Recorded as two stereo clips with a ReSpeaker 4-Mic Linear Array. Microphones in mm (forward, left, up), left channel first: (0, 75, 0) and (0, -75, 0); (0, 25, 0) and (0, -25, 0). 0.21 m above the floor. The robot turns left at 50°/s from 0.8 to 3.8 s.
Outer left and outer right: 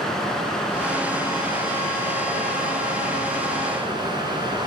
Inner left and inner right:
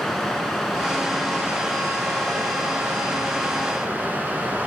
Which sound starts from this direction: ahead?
Running water, at 0.0 s.